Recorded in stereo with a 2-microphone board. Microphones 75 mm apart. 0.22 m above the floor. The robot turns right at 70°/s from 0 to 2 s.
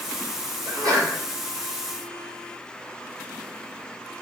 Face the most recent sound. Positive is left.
turn(degrees=0)